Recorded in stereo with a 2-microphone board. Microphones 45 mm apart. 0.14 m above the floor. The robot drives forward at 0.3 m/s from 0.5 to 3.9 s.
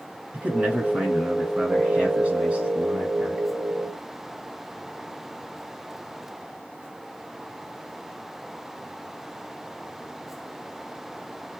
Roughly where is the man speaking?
Right.